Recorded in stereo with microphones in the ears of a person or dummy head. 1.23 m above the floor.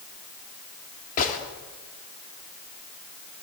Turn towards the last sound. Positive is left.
turn(degrees=45)  # may be behind; listen again after turning